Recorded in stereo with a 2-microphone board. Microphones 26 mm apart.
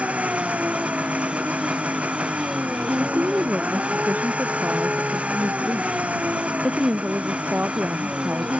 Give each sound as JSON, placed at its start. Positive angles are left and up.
{"t": 0.0, "sound": "an engine running", "side_deg": -60}
{"t": 3.0, "sound": "a woman speaking", "side_deg": -85}